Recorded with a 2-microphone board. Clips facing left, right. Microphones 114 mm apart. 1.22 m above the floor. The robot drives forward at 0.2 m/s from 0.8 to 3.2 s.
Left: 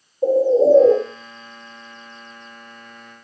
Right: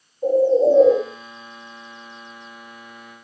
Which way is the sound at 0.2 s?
35° left (ahead or behind).